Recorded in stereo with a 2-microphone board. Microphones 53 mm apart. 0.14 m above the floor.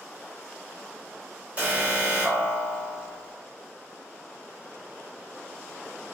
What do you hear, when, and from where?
1.6 s an alarm: 25° right (ahead or behind), 0.9 m